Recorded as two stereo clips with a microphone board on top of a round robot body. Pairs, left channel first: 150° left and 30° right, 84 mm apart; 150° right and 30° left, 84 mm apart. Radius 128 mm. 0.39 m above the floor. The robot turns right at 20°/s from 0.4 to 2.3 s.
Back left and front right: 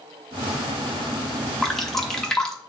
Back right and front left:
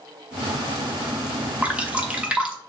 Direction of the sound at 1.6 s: 65° left.